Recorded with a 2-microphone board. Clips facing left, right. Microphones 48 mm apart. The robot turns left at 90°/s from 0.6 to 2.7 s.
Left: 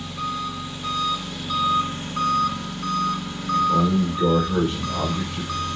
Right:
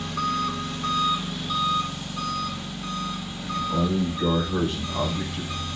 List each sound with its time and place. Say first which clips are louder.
0.0 s an engine running: right 2 dB; 105° right, 2 m; by 5.8 s 70° left, 2 m
3.4 s a man speaking: left 6 dB; 65° left (ahead or behind), 6.5 m